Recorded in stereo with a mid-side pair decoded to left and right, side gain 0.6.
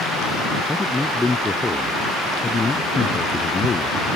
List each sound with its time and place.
0.7 s a man speaking: 10° left; by 4.0 s 30° left